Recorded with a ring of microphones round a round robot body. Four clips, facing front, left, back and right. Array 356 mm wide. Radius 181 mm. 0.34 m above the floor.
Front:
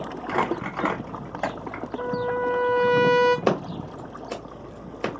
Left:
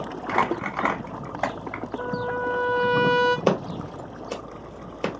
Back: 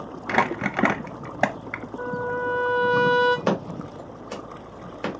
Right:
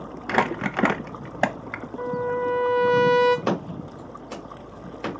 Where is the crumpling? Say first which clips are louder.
Right 1 dB, back 2 dB; 140° right, 0.6 m.